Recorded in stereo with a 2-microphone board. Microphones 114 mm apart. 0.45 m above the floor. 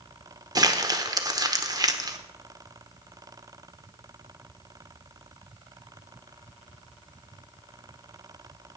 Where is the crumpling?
35° right (ahead or behind), 1.0 m.